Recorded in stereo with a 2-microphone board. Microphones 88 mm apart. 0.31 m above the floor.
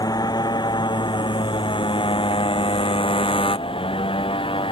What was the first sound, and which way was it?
A motorcycle, 45° left (ahead or behind).